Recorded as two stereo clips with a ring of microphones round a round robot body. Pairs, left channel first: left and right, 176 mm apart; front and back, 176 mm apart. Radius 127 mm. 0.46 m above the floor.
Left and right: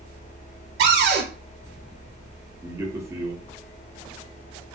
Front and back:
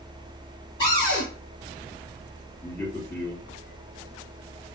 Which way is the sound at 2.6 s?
45° right.